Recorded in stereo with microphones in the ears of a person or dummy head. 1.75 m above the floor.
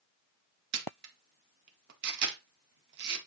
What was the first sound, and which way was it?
A camera shutter, 65° right (ahead or behind).